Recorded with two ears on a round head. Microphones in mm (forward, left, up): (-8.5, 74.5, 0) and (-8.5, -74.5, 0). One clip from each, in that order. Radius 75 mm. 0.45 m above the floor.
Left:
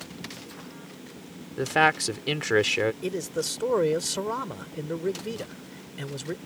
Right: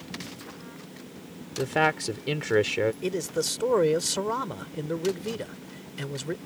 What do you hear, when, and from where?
1.6 s a man speaking: 30° left (ahead or behind)
3.0 s a man speaking: 5° right (ahead or behind)